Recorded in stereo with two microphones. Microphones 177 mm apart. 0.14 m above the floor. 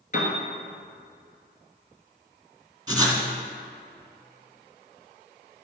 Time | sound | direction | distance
0.1 | a piano | 45° left (ahead or behind) | 1.6 m
2.9 | writing | 20° right (ahead or behind) | 1.2 m